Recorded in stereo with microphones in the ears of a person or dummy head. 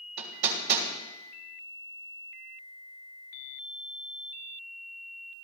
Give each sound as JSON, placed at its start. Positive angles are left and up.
{"t": 0.2, "sound": "hammering", "side_deg": -60, "distance_m": 3.0}